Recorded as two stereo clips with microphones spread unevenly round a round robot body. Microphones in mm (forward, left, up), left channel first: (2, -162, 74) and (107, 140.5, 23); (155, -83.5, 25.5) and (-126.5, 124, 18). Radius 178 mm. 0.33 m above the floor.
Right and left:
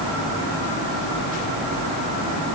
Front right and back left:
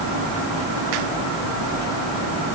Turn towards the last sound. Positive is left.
No sound to turn to.